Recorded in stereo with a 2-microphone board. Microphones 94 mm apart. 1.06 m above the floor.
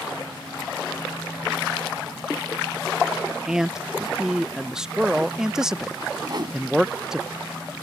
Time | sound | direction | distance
3.5 | a man speaking | 10° right (ahead or behind) | ?
6.3 | a whoosh | 50° right (ahead or behind) | ?